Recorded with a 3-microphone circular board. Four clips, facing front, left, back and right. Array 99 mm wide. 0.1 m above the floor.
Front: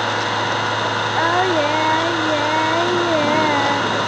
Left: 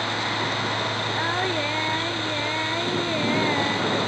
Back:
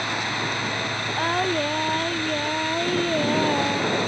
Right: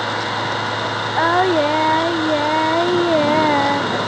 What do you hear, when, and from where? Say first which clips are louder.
0.0 s an engine running: right 5 dB, front 8 dB; 35° right
1.2 s singing: right 13 dB, front 6 dB; 70° right